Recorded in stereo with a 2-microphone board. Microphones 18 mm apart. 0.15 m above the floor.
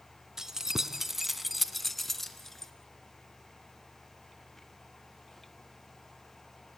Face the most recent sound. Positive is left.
turn(degrees=15)  # may be behind; listen again after turning